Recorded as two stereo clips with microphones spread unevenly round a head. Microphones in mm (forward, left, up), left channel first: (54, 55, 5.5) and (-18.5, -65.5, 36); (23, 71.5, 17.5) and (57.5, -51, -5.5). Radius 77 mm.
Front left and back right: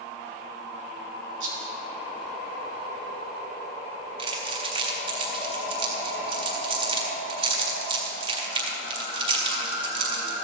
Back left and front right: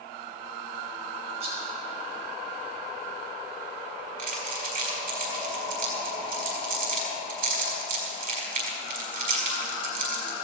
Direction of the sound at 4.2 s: 70° right.